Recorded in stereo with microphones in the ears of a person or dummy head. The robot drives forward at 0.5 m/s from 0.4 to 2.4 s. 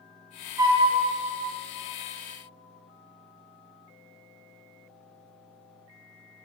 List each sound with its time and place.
0.6 s a flute: 15° right (ahead or behind), 0.6 m